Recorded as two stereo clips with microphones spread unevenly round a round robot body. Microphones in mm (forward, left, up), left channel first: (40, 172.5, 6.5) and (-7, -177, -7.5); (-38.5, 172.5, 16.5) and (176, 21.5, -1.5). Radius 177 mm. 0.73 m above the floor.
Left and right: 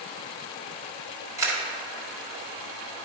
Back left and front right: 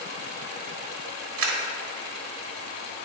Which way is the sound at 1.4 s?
20° right.